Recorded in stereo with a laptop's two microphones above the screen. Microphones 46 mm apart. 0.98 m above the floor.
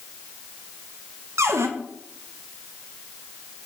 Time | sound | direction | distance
1.4 | a cupboard door | 80° right | 0.7 m